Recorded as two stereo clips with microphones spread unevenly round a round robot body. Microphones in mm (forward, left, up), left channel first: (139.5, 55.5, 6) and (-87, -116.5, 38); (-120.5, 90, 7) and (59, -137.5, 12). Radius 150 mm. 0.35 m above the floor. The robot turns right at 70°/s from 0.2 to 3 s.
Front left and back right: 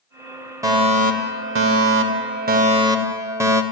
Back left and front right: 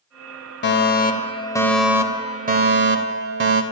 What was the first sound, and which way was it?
A fire alarm, 135° left.